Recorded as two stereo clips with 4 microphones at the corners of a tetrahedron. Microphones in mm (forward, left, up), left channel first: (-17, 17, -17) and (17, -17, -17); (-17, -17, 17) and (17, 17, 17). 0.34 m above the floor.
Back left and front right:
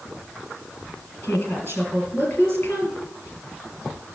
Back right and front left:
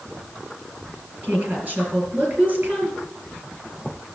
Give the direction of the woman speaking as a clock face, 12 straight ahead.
9 o'clock.